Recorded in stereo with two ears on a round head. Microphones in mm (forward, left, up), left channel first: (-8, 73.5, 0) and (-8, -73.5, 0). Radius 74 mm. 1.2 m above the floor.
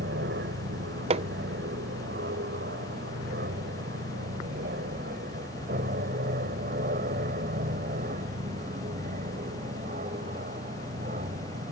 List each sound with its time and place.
0.0 s an aircraft: 65° right (ahead or behind); by 11.7 s 40° right (ahead or behind)
1.1 s hammering: 35° right (ahead or behind)